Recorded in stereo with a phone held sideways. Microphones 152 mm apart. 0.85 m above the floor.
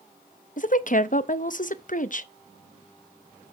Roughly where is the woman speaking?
Left.